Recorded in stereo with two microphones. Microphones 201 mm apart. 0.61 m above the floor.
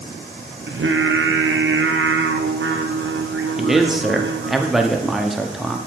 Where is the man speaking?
Centre (ahead or behind), 0.6 m.